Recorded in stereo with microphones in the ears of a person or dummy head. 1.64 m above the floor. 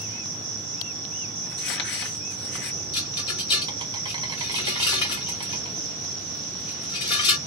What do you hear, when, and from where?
0.0 s an insect: 25° right (ahead or behind), 1.5 m
1.5 s crumpling: 55° left (ahead or behind), 1.2 m
2.9 s a rattle: 25° left (ahead or behind), 0.9 m